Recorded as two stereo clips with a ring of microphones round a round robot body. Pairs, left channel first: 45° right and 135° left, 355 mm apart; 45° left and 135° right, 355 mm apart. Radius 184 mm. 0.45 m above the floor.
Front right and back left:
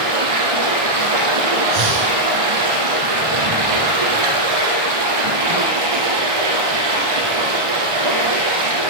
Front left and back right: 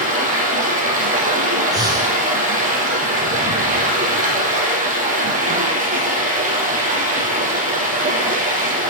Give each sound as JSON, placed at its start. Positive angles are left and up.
{"t": 0.0, "sound": "running water", "azimuth_deg": 155, "distance_m": 4.0}
{"t": 1.7, "sound": "breathing", "azimuth_deg": 145, "distance_m": 3.5}